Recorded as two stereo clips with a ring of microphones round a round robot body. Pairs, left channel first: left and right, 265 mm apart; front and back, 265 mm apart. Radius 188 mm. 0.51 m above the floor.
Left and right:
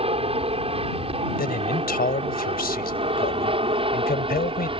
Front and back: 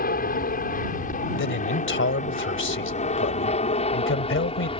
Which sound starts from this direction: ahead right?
An aircraft, at 0.0 s.